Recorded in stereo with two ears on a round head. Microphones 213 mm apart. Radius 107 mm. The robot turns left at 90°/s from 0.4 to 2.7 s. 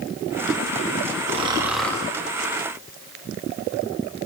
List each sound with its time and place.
1.3 s snoring: 135° right, 0.8 m; by 2.1 s 155° left, 0.8 m